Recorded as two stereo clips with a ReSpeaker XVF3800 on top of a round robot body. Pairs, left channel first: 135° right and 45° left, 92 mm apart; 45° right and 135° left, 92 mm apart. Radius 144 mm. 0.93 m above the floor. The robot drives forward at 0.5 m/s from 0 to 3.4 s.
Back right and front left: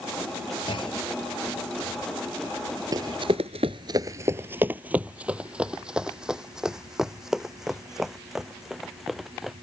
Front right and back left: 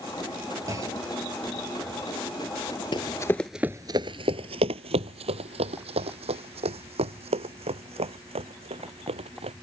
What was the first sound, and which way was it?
A clunk, 170° right.